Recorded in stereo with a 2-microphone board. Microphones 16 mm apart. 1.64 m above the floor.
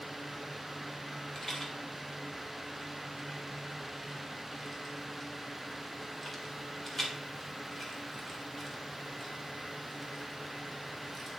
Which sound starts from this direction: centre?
A rattle, at 1.4 s.